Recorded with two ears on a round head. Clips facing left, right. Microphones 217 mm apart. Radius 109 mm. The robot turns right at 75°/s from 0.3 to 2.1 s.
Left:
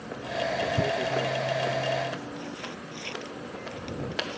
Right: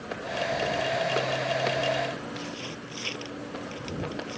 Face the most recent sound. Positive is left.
turn(degrees=-20)  # may be behind; listen again after turning